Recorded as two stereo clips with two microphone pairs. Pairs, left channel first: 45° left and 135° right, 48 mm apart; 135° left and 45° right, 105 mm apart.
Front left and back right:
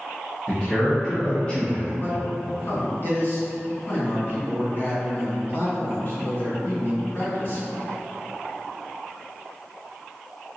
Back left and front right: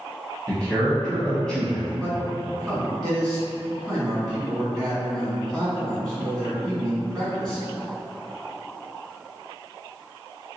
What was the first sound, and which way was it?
A man speaking, 75° left.